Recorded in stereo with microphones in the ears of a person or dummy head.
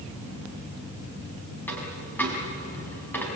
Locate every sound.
1.7 s a dropped coin: 15° left (ahead or behind), 4.5 m